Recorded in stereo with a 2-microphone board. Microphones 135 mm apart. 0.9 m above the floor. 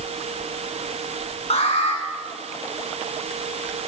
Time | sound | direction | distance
1.5 | an alarm | 50° left (ahead or behind) | 8 m